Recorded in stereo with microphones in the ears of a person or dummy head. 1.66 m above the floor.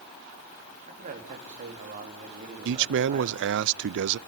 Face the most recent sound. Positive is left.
turn(degrees=-70)  # may be behind; listen again after turning